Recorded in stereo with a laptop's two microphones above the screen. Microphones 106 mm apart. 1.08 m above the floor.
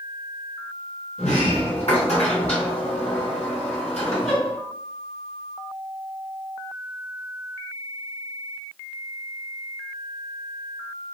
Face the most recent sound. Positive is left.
turn(degrees=85)